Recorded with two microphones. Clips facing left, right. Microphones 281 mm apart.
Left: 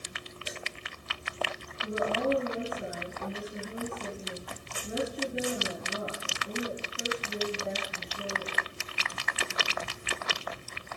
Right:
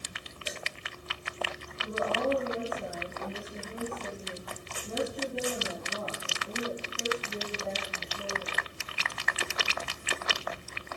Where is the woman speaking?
10° left (ahead or behind), 5.5 m.